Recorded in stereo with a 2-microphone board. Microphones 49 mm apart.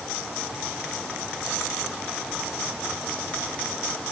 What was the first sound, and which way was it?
Only background noise.